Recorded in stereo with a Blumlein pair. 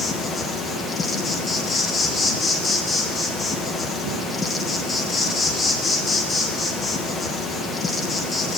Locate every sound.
0.0 s an insect: 15° left, 1.1 m